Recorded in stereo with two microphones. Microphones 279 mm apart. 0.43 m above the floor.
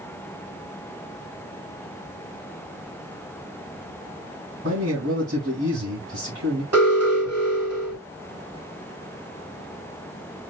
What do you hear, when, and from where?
4.6 s a man speaking: 50° right (ahead or behind), 2 m
6.7 s an alarm: 60° right (ahead or behind), 3 m